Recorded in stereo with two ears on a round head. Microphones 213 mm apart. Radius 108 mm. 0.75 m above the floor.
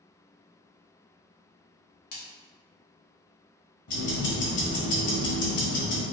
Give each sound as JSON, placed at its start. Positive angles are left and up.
{"t": 2.1, "sound": "a splash", "side_deg": 45, "distance_m": 1.4}
{"t": 3.9, "sound": "ticking", "side_deg": 55, "distance_m": 1.6}